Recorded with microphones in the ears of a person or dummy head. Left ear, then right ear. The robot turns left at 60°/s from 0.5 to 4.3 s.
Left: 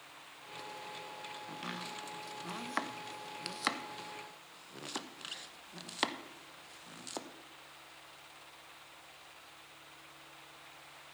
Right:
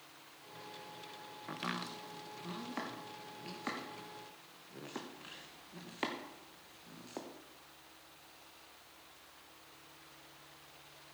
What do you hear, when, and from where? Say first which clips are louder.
1.5 s chopping: right 4 dB; 25° right (ahead or behind), 0.9 m; by 7.3 s 35° left (ahead or behind), 0.9 m